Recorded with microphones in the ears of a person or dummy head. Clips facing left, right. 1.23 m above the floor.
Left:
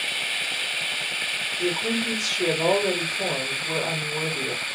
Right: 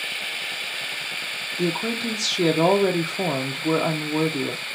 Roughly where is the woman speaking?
Right.